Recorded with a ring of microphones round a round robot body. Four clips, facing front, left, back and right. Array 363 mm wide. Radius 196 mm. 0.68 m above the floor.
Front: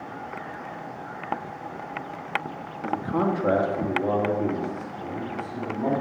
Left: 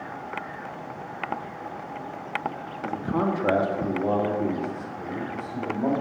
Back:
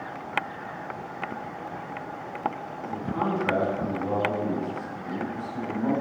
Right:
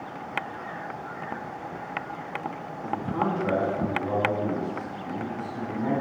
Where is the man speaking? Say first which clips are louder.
Left 2 dB, front 4 dB; 35° left, 1.8 m; by 5.9 s 60° left, 4 m.